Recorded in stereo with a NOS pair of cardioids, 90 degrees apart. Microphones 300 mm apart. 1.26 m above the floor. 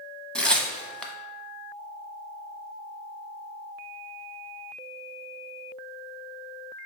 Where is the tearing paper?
5° left, 0.7 m.